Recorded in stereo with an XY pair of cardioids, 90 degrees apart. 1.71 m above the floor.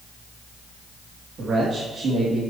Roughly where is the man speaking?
Ahead right.